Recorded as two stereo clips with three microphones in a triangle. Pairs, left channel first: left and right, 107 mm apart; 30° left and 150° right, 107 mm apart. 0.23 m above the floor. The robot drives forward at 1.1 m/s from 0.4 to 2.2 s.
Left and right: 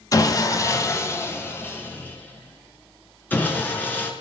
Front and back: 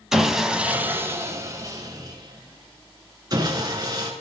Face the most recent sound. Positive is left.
turn(degrees=165)